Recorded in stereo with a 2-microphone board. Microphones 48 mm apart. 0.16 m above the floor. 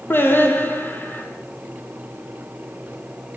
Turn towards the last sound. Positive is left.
turn(degrees=45)  # may be behind; listen again after turning